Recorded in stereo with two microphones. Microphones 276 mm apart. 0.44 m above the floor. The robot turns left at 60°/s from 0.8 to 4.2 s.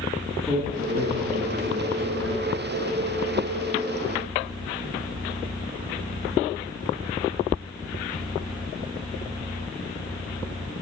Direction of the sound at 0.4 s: 5° left.